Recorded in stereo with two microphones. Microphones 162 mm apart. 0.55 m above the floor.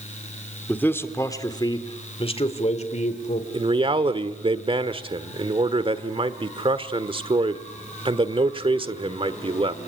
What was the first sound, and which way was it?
A man speaking, 10° left (ahead or behind).